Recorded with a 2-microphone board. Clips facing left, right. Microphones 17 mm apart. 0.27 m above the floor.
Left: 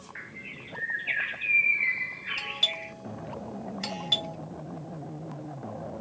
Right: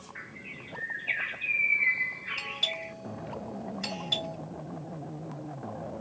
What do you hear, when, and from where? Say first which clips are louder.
0.1 s a bird: left 2 dB; 25° left (ahead or behind), 1.3 m
2.4 s a doorbell: left 4 dB; 25° left (ahead or behind), 1.8 m